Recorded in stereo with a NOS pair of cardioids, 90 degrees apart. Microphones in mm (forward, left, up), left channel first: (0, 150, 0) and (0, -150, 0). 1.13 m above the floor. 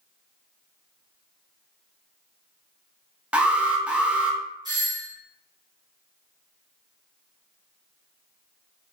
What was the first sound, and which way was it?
An alarm, 5° right.